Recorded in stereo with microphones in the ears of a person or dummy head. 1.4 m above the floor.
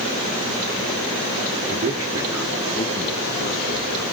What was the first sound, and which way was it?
A man speaking, 40° right (ahead or behind).